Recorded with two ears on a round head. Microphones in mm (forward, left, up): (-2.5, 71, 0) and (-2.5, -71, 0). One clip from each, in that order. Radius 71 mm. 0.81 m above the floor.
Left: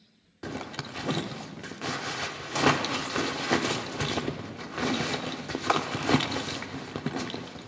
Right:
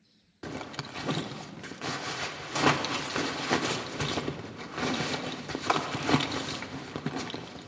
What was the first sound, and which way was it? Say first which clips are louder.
A zipper: left 2 dB; 5° right (ahead or behind).